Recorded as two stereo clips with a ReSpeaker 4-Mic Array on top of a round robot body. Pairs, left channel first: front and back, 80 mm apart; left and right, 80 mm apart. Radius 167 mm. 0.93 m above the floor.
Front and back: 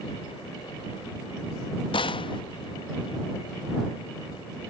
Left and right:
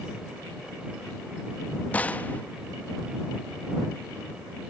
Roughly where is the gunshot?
Ahead.